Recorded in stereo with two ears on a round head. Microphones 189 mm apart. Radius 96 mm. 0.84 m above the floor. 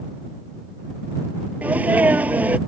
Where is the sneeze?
5° right (ahead or behind).